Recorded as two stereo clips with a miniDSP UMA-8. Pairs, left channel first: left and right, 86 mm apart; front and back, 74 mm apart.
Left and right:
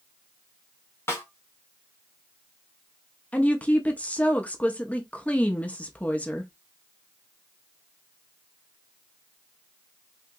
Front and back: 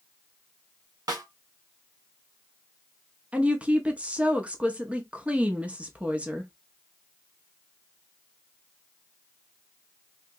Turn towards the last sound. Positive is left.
turn(degrees=135)